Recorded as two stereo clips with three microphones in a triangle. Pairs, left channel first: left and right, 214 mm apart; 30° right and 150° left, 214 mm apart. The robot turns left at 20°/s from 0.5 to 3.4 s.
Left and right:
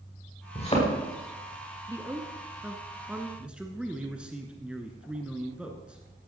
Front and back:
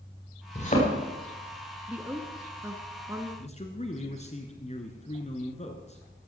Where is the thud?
30° left, 5.5 m; by 0.9 s 20° left, 5.5 m.